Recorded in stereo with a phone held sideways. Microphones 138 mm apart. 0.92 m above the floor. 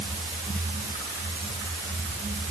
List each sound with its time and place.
Only background noise.